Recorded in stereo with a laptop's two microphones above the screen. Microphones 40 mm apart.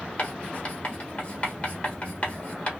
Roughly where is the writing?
Left.